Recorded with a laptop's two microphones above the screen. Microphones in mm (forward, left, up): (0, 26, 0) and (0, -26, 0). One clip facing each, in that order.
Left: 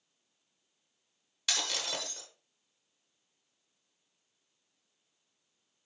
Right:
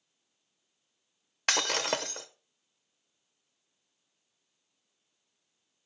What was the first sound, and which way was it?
Breaking glass, 50° right (ahead or behind).